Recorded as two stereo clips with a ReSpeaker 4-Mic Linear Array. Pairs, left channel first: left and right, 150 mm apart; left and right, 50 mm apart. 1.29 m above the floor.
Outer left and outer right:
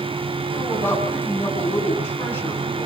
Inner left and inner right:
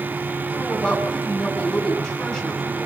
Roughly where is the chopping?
I don't hear chopping.